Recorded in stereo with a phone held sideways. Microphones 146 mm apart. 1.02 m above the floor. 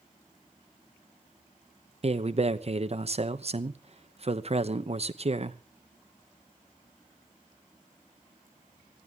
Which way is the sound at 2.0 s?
45° right (ahead or behind).